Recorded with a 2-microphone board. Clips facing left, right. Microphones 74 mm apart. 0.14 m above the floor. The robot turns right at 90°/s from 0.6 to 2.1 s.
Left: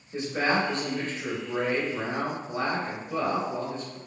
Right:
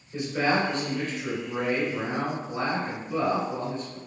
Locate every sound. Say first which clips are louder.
0.1 s a man speaking: right 1 dB; 45° left, 2.0 m; by 4.0 s straight behind, 2.0 m